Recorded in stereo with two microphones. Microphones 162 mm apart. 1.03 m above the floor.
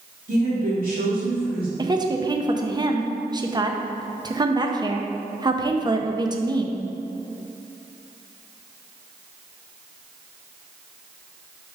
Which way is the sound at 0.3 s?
55° right (ahead or behind).